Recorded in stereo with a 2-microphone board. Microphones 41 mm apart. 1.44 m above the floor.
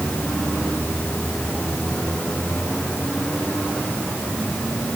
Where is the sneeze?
I don't hear a sneeze.